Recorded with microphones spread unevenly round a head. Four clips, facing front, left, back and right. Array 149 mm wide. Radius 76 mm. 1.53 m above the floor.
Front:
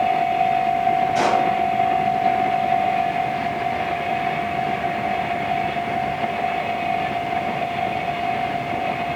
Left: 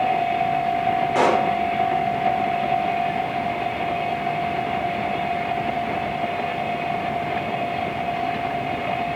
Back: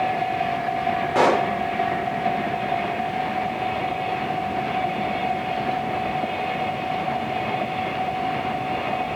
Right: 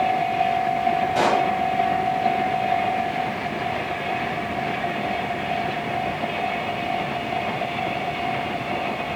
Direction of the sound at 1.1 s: 155° left.